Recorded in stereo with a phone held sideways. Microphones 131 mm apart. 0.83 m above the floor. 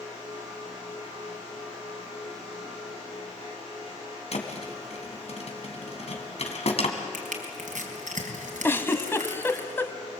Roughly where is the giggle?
Centre.